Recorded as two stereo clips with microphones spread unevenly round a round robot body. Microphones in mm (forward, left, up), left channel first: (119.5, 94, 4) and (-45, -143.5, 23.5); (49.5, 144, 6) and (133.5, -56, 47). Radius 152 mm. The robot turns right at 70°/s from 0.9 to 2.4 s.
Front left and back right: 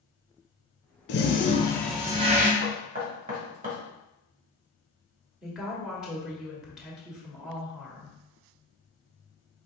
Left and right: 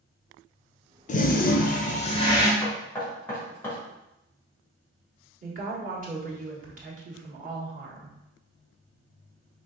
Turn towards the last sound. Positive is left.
turn(degrees=-35)